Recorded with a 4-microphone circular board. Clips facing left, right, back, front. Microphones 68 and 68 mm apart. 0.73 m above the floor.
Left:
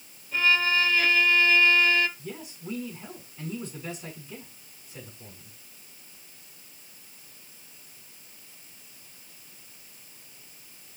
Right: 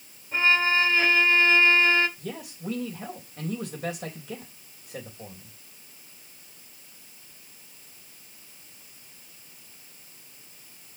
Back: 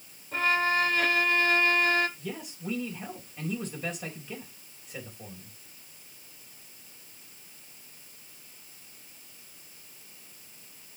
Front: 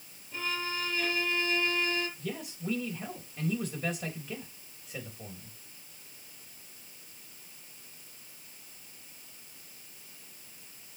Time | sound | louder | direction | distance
0.3 | a violin | right 1 dB, back 10 dB | 150° right | 1.4 m
2.2 | a man speaking | right 3 dB, even | 90° right | 3.5 m